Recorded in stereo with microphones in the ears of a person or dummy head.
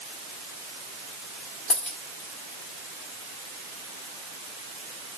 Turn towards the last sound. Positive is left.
turn(degrees=5)  # may be behind; listen again after turning